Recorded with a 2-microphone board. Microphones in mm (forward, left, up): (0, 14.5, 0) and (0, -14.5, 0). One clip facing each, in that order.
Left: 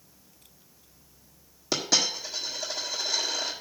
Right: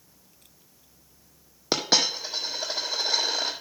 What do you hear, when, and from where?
1.7 s a dropped coin: 35° right (ahead or behind), 1.7 m